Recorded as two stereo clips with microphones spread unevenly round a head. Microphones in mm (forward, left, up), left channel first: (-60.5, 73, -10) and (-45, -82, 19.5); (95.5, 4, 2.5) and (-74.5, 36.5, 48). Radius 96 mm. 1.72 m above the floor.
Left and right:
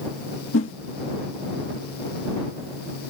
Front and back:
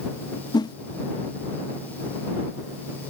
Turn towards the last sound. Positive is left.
turn(degrees=60)